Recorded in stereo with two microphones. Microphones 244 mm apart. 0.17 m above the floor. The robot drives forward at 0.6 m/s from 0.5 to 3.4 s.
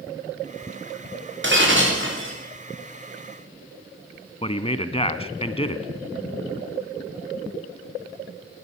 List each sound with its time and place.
1.4 s breaking glass: 50° right (ahead or behind), 8 m; by 2.4 s 55° right (ahead or behind), 8 m
4.4 s a man speaking: 25° left (ahead or behind), 1.2 m